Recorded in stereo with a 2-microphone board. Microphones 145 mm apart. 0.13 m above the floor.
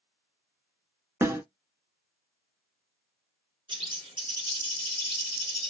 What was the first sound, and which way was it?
A snare drum, 20° right (ahead or behind).